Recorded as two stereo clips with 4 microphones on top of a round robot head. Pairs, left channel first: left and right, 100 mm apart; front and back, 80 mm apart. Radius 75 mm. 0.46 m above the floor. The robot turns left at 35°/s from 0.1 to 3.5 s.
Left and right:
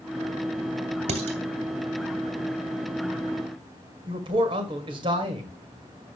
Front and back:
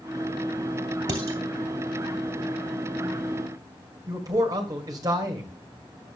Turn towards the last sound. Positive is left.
turn(degrees=-130)